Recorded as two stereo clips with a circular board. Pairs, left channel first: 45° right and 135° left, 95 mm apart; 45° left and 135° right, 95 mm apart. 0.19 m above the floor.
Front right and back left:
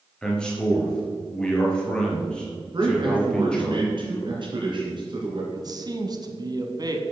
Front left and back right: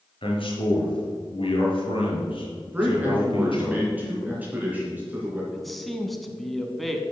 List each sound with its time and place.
0.2 s a man speaking: 35° left, 3 m
2.7 s a man speaking: 155° left, 3 m
5.5 s a man speaking: 135° left, 1.3 m